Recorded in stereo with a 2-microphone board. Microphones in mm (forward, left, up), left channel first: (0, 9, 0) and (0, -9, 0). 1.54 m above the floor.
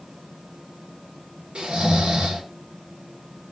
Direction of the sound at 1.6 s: 80° right.